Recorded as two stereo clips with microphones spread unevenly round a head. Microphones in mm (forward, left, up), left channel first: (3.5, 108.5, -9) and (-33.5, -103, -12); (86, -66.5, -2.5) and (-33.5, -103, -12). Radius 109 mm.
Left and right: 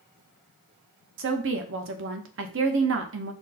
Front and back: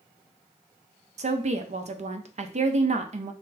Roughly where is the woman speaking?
Behind right.